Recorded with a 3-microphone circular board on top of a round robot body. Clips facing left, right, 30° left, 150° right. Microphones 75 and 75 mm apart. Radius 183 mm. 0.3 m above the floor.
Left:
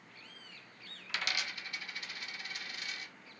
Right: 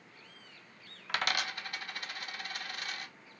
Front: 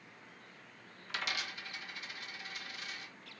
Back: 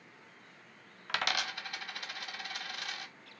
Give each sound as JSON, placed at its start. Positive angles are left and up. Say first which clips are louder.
{"t": 1.1, "sound": "a dropped coin", "louder": "right 5 dB, back 5 dB", "azimuth_deg": -130, "distance_m": 1.4}